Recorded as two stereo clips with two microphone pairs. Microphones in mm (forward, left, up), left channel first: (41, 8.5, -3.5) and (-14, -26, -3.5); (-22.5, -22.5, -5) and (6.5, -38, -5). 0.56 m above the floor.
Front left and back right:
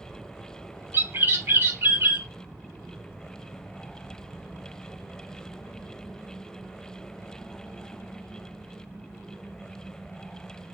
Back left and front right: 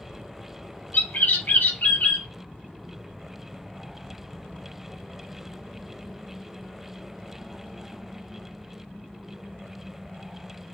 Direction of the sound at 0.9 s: 160° left.